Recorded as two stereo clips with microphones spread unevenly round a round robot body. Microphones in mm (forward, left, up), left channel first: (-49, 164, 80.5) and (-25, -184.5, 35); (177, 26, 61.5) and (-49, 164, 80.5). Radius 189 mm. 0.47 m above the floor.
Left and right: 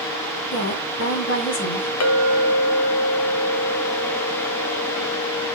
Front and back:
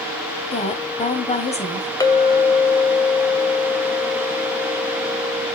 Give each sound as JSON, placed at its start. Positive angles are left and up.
{"t": 0.5, "sound": "a woman speaking", "azimuth_deg": 35, "distance_m": 3.0}
{"t": 2.0, "sound": "a clink", "azimuth_deg": 45, "distance_m": 2.0}